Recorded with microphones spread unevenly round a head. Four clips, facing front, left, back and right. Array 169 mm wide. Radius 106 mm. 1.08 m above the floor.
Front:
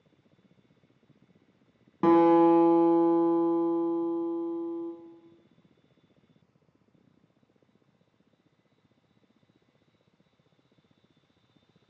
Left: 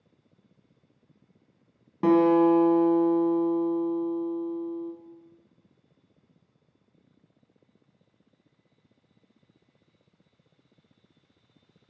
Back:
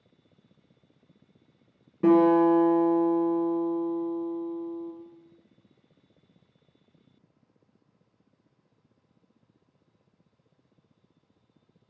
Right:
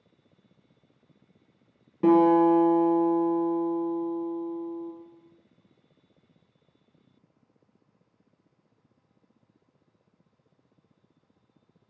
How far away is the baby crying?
I don't hear a baby crying.